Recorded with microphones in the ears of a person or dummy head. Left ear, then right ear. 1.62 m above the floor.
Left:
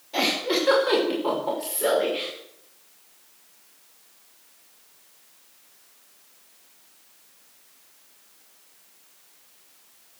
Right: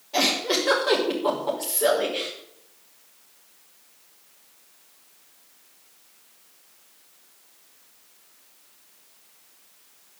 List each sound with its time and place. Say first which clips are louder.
0.1 s a giggle: right 1 dB; 5° right (ahead or behind), 5 m